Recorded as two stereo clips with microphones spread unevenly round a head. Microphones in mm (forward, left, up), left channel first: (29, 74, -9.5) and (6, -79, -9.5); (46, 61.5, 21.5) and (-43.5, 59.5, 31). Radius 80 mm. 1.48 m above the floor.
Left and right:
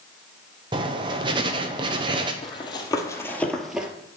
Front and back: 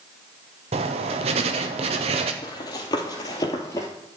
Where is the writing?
160° right, 0.9 m.